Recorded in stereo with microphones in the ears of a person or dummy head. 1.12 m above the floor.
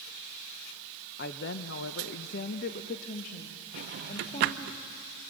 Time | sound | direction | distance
1.2 | a woman speaking | 50° left (ahead or behind) | 0.8 m
3.7 | a drawer | 50° right (ahead or behind) | 0.5 m